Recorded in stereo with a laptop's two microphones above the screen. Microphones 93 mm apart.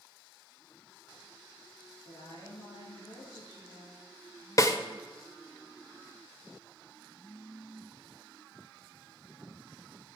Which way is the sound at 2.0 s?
75° left (ahead or behind).